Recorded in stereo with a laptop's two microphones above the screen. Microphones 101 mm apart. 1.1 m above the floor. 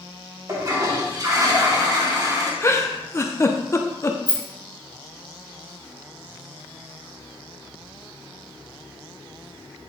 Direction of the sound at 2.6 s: 30° left (ahead or behind).